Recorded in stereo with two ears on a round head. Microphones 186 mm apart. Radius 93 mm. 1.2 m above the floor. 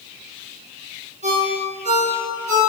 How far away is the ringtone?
About 6.5 m.